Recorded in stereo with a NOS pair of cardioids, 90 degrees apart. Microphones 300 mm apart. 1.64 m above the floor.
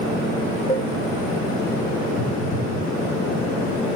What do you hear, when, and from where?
0.7 s dishes clattering: 20° left, 2 m
2.2 s a phone buzzing: 50° left, 5.5 m